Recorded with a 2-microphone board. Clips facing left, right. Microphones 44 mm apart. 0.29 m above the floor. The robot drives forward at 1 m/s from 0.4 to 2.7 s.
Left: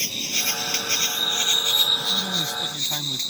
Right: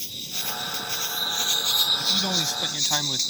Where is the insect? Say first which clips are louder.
Left 7 dB; 75° left (ahead or behind); by 3.3 s 25° left (ahead or behind).